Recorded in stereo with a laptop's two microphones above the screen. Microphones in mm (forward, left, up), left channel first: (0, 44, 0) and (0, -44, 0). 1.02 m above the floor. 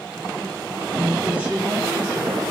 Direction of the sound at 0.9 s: 5° right (ahead or behind).